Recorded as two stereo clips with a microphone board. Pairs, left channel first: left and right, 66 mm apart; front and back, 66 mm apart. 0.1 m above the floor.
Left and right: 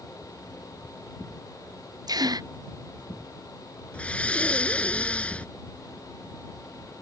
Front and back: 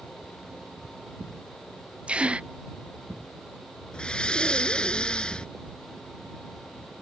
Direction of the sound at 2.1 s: 105° right.